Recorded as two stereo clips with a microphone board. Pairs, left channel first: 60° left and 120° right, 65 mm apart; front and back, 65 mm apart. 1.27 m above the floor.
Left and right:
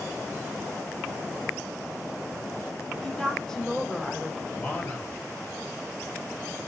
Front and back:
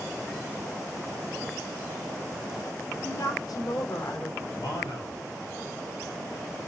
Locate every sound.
3.0 s a woman speaking: 20° right, 3 m
4.5 s a man speaking: 10° right, 8.5 m